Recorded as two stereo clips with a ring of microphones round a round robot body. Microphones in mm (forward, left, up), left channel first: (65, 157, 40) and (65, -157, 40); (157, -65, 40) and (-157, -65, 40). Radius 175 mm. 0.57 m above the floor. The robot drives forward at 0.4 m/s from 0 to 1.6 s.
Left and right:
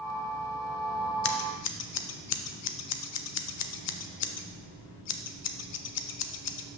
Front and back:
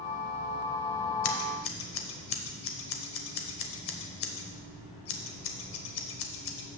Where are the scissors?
45° left, 0.7 m; by 6.7 s 55° left, 0.6 m.